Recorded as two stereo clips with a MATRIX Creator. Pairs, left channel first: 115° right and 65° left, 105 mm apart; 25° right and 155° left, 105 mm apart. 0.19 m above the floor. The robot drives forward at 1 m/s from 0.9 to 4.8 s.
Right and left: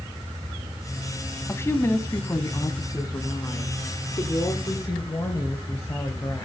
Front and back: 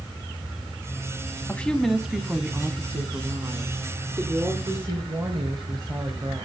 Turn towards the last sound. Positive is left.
turn(degrees=-165)